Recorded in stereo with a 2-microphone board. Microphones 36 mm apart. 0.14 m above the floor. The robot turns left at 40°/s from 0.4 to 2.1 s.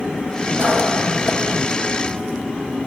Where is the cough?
110° right, 6.5 m; by 1.6 s 155° right, 6.5 m.